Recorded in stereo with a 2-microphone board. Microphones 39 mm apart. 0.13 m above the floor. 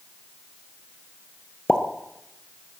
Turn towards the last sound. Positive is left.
turn(degrees=20)  # may be behind; listen again after turning